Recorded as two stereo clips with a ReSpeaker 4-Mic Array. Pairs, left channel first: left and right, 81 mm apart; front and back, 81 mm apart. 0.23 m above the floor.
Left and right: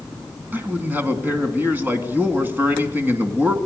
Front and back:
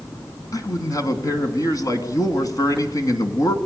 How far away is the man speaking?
About 2.5 m.